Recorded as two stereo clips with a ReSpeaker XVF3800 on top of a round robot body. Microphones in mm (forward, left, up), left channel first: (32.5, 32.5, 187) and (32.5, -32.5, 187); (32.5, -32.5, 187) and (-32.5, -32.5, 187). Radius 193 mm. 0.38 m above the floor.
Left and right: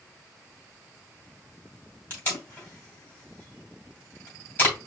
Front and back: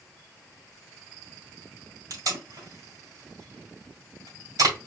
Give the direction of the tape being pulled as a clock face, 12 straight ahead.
7 o'clock.